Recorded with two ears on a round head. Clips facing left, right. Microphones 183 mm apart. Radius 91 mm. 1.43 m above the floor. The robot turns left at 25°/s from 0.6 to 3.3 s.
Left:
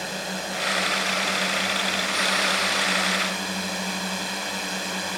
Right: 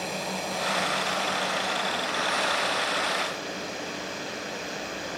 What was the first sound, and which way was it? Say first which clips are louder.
A drone: even; 170° left.